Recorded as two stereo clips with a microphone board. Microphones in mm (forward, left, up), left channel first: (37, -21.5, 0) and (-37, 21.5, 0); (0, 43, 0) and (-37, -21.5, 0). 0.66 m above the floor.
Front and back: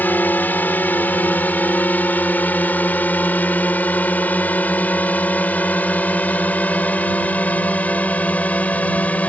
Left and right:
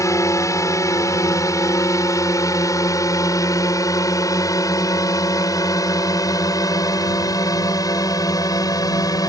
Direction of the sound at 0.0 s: 35° left.